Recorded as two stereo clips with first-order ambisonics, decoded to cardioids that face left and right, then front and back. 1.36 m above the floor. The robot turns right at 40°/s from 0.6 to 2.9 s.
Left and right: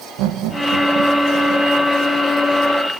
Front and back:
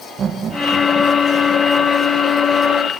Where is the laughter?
115° right, 1.0 m; by 1.7 s 70° right, 1.0 m.